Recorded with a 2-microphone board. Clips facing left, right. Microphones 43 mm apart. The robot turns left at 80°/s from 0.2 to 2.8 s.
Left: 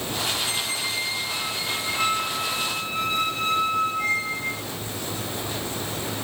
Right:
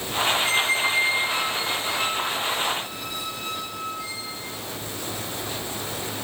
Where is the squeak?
95° right, 0.9 m; by 4.6 s 75° left, 0.9 m.